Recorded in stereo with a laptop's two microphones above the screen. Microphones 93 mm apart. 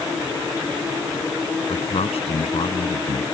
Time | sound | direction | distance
1.7 | a man speaking | 85° left | ?